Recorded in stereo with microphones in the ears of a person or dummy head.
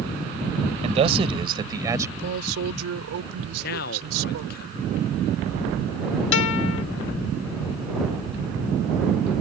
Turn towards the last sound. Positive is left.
turn(degrees=70)  # may be behind; listen again after turning